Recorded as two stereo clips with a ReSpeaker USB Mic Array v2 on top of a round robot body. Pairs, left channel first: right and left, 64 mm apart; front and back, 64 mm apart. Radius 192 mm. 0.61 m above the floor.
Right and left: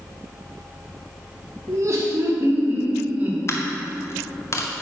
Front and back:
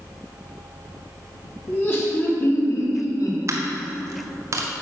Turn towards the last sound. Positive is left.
turn(degrees=-135)